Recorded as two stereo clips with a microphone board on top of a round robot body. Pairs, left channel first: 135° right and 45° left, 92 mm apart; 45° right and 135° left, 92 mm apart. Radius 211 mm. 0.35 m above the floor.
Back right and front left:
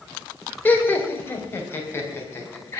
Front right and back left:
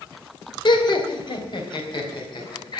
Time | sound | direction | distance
0.7 | laughter | 70° right | 2.5 m